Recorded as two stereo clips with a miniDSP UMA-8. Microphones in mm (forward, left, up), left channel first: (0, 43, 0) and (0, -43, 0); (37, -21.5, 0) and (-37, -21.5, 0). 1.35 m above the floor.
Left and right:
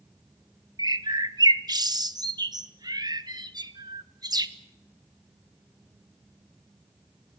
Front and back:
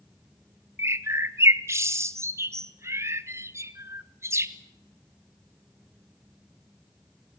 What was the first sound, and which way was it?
A bird, 125° right.